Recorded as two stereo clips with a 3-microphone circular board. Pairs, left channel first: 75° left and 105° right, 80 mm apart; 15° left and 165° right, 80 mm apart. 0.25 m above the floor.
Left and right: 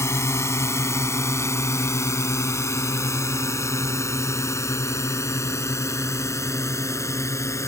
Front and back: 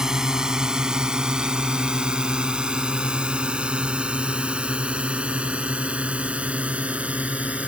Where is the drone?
115° left; by 7.7 s 125° left.